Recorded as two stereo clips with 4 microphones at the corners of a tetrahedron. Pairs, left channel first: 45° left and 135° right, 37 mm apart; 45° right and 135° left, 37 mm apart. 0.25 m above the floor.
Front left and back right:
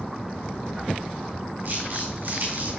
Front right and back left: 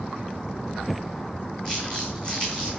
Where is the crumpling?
110° right, 4.5 m.